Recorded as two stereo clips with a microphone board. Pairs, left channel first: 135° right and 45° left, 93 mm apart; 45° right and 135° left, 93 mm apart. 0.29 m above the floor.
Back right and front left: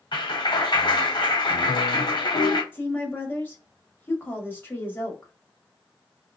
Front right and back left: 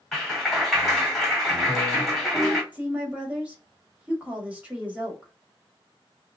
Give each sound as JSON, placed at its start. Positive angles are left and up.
{"t": 0.1, "sound": "a clap", "azimuth_deg": -135, "distance_m": 1.8}
{"t": 2.7, "sound": "a woman speaking", "azimuth_deg": -170, "distance_m": 1.5}